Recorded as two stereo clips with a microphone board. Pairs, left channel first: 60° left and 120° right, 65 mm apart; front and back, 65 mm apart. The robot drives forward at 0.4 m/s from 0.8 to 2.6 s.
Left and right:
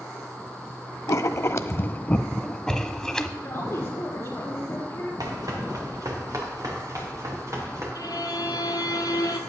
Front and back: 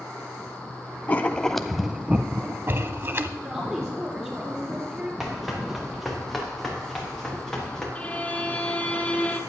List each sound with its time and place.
1.1 s writing: 55° left, 0.5 m; by 3.3 s 140° left, 0.6 m
3.4 s a woman speaking: 115° left, 5.5 m
5.2 s running footsteps: 95° right, 3 m; by 7.8 s 80° right, 4 m
8.0 s a violin: 70° left, 1.0 m